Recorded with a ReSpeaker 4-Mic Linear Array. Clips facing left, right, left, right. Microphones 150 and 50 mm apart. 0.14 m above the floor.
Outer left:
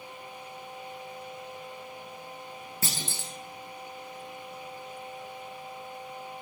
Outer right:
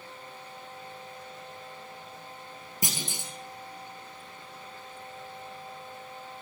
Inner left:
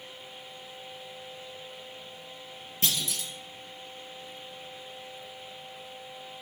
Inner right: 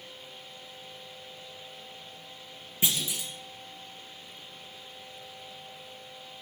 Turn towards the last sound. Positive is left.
turn(degrees=-15)  # may be behind; listen again after turning